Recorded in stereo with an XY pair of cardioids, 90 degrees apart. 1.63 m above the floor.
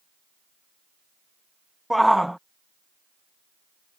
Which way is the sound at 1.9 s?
Straight ahead.